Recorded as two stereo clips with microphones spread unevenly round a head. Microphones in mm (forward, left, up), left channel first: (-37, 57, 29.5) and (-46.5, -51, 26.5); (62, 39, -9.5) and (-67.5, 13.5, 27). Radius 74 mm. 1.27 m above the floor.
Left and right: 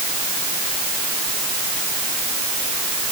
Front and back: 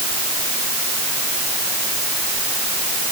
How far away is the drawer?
No drawer in this recording.